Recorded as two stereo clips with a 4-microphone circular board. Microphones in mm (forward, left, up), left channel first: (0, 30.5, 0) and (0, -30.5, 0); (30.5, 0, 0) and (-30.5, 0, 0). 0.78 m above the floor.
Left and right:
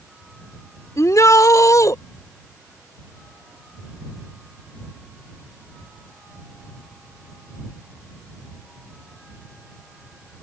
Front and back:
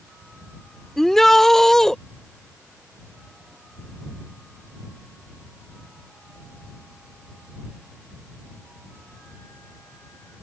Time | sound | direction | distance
1.0 | a shout | 85° left | ?